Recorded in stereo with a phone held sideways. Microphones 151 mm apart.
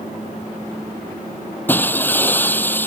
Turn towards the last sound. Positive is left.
turn(degrees=10)  # may be behind; listen again after turning